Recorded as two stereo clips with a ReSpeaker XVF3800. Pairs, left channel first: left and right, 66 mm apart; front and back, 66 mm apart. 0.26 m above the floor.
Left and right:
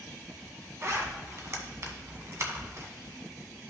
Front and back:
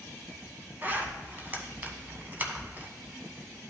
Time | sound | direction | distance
0.8 | a zipper | 125° right | 1.3 m